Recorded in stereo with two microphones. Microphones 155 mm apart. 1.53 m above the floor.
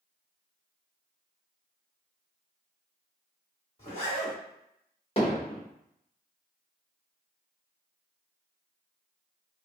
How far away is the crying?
No crying in this recording.